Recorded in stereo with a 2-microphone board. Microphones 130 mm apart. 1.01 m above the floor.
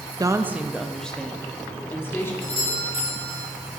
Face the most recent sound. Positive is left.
turn(degrees=45)  # may be behind; listen again after turning